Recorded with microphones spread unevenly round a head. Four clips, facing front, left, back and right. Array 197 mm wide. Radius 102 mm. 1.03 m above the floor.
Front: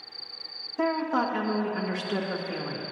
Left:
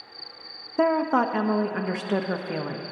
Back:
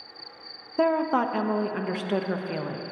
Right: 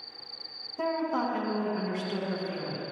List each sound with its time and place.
0.8 s a woman speaking: 115° left, 0.9 m